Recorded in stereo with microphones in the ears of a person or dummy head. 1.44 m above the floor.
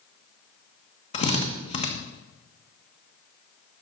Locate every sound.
1.1 s a drill: 35° left (ahead or behind), 1.3 m